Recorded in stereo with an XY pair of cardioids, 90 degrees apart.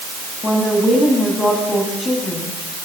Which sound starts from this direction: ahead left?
A woman speaking, at 0.4 s.